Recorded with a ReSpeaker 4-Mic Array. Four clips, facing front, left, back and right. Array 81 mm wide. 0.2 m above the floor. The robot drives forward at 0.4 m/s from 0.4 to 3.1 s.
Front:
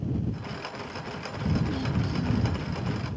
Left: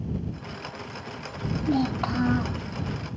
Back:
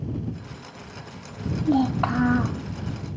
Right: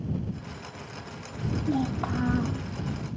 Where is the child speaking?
165° left; by 2.6 s 170° left.